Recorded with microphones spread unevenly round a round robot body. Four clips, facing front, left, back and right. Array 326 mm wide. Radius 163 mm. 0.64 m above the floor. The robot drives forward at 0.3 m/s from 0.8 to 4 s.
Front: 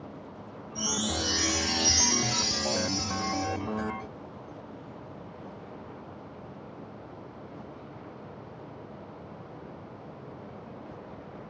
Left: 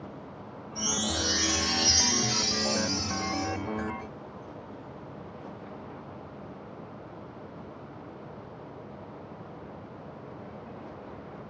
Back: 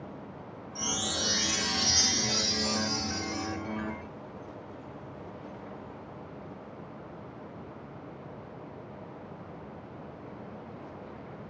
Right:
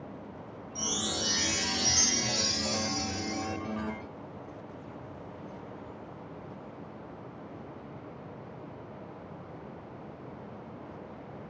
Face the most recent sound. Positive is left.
turn(degrees=-115)